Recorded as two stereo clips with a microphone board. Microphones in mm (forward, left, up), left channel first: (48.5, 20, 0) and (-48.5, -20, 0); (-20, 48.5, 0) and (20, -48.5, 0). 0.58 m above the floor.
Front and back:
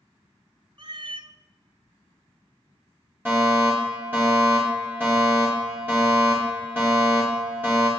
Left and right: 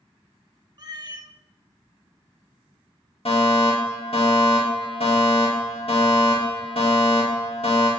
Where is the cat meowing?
115° right, 0.8 m.